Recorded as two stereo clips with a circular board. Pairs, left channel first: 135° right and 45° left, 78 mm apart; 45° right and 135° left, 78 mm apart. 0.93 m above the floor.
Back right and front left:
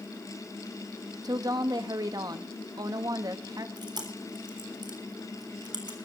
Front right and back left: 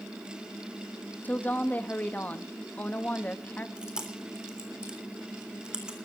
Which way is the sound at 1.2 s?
20° left.